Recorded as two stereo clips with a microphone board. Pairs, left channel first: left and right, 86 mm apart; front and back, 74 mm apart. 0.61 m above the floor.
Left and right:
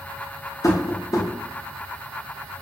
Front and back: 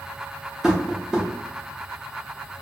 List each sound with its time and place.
0.6 s tapping: 105° left, 0.6 m